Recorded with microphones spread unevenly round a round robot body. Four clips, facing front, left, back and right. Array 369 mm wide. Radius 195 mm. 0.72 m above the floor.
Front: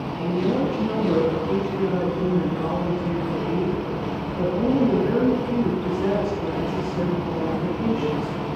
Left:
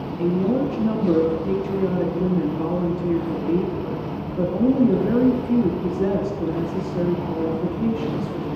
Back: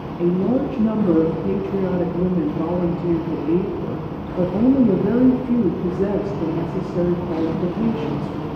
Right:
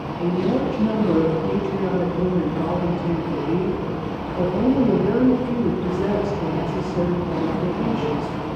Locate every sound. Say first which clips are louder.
0.2 s a woman speaking: even, back 4 dB; 165° left, 1.2 m